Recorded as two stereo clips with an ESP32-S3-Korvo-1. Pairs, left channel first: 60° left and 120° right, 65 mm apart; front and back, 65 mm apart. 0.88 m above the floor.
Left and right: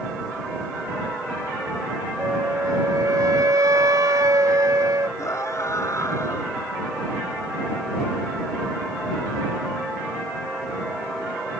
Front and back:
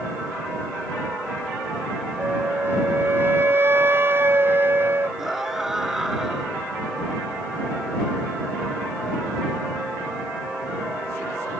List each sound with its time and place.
2.2 s a flute: 130° right
5.2 s a scream: 95° left